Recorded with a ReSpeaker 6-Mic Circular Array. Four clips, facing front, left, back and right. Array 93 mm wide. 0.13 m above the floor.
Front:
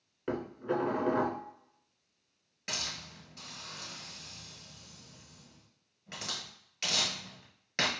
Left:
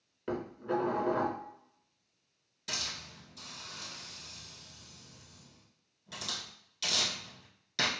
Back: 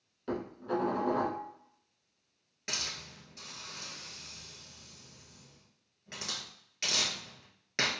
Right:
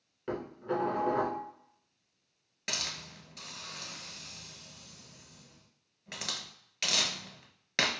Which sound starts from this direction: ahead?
Dishes clattering, at 0.3 s.